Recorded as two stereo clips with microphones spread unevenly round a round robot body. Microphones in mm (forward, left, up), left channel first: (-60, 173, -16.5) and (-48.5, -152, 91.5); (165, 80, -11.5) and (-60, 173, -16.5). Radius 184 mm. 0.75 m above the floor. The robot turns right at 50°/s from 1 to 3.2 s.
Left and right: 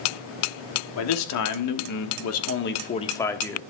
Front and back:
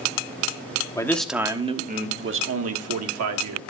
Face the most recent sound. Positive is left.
turn(degrees=165)